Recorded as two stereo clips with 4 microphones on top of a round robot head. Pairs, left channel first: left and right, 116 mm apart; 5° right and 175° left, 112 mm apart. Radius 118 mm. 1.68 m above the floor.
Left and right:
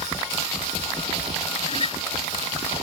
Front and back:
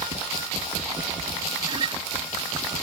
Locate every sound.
1.7 s a guitar: 130° left